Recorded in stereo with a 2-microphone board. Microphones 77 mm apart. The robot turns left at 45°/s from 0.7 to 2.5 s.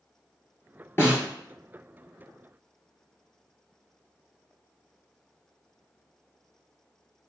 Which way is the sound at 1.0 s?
30° left (ahead or behind).